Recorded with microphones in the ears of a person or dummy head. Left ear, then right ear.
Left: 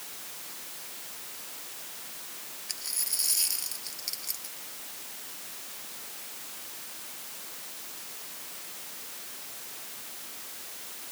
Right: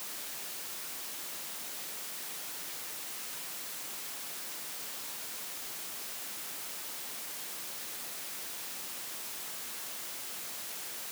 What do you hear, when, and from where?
2.7 s a dropped coin: 80° left